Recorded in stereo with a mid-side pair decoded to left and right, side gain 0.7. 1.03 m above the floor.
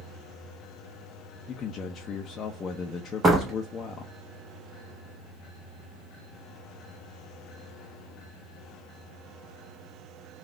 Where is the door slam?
25° right, 1.1 m.